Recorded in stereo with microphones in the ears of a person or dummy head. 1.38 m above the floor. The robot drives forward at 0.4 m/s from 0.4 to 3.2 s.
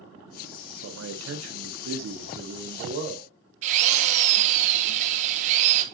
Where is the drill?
40° right (ahead or behind), 0.8 m.